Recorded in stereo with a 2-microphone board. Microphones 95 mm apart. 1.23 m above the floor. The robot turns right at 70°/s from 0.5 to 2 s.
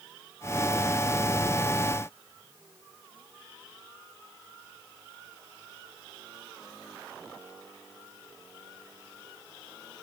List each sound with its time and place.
Only background noise.